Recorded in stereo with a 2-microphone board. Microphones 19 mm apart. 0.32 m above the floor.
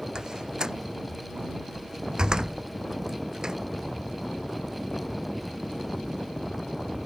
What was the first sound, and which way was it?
A door slam, 40° right (ahead or behind).